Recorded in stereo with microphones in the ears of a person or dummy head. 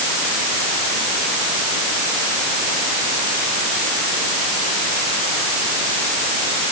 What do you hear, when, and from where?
Only background noise.